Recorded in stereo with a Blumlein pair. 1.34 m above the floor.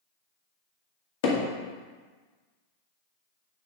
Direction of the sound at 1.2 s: 50° left.